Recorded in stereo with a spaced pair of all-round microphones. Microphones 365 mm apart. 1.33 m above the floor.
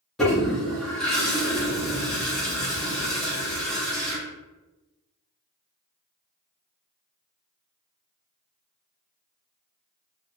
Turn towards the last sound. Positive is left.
turn(degrees=0)  # may be behind; listen again after turning